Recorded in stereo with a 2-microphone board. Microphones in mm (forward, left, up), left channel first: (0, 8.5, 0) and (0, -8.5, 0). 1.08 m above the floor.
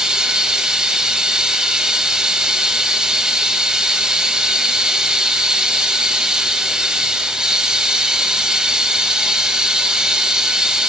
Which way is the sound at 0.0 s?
50° right (ahead or behind).